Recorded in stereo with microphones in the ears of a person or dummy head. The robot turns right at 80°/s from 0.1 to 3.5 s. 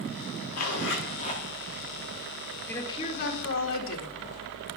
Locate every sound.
0.5 s a zipper: 90° left, 1.3 m; by 1.4 s 160° left, 1.3 m
2.7 s a woman speaking: 10° left, 1.9 m; by 4.2 s 75° left, 1.9 m